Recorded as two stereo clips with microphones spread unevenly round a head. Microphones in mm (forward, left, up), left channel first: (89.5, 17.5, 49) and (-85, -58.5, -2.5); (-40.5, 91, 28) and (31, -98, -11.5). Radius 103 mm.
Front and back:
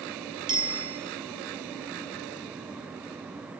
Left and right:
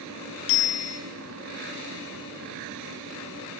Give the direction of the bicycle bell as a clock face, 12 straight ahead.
8 o'clock.